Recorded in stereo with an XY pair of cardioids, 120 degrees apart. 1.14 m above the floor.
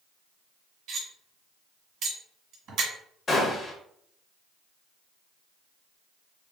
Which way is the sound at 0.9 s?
55° right.